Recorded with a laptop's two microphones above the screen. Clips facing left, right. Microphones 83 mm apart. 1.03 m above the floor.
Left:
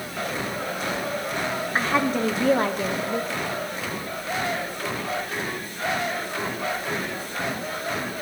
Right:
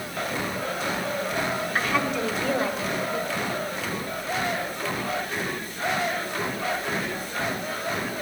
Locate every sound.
1.8 s a woman speaking: 25° left (ahead or behind), 0.9 m; by 3.5 s 65° left (ahead or behind), 1.5 m